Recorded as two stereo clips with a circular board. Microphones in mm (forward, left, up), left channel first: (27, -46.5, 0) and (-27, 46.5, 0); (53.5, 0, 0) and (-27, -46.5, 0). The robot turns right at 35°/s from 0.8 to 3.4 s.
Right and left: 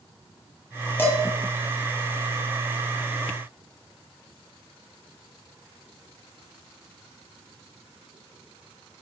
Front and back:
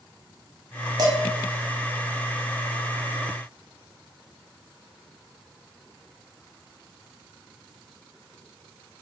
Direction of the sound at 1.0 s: 125° right.